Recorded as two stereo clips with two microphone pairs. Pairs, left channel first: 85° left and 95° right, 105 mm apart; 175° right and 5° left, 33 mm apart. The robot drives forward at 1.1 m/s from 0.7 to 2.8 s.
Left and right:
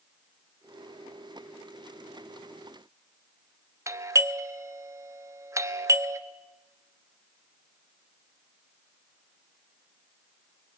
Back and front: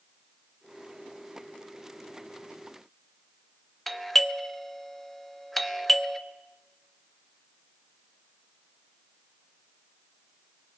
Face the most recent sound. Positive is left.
turn(degrees=-95)